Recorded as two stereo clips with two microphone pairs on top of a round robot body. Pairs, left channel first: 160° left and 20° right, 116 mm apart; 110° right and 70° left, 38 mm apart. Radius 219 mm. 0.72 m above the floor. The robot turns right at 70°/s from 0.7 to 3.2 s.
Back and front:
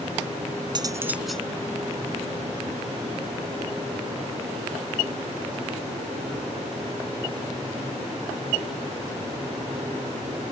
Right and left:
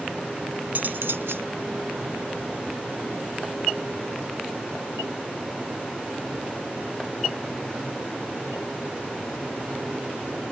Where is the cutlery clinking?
30° left; by 1.5 s 80° left.